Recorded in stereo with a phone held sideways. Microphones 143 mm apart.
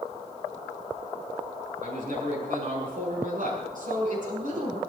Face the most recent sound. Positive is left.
turn(degrees=-65)  # may be behind; listen again after turning